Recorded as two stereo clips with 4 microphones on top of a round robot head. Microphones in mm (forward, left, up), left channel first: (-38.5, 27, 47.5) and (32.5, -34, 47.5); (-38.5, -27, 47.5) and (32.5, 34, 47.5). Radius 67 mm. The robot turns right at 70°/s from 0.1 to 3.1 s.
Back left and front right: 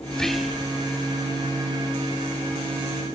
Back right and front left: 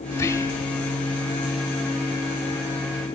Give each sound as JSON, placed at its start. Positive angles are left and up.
{"t": 0.1, "sound": "whispering", "azimuth_deg": -150, "distance_m": 1.1}